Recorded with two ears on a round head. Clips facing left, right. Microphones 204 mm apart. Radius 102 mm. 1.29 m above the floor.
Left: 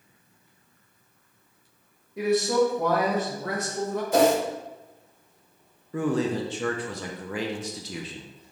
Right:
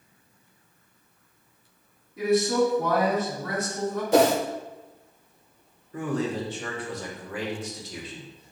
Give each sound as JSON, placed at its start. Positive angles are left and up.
{"t": 2.2, "sound": "a man speaking", "side_deg": 55, "distance_m": 1.5}
{"t": 4.1, "sound": "a whoosh", "side_deg": -55, "distance_m": 0.6}
{"t": 5.9, "sound": "a man speaking", "side_deg": 60, "distance_m": 0.7}